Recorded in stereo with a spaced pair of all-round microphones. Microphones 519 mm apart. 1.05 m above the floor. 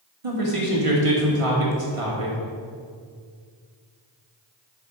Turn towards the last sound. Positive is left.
turn(degrees=-80)